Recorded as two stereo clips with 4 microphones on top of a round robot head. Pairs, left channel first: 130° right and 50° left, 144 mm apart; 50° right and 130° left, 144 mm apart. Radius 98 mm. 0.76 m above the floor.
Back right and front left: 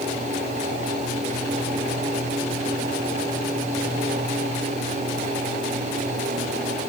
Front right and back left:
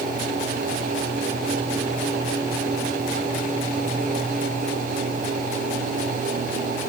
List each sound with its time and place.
Only background noise.